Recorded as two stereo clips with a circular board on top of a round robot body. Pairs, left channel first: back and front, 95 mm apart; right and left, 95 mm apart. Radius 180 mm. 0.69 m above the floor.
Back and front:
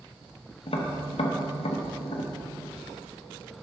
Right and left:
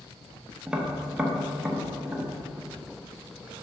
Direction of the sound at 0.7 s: 170° left.